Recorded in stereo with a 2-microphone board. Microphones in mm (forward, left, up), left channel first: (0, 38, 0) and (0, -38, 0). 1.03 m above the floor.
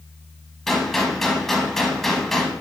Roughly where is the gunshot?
Centre.